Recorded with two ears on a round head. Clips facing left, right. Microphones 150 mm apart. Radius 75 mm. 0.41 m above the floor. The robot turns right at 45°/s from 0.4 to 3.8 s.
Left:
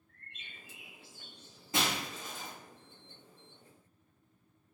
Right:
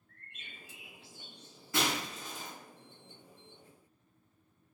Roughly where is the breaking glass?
Left.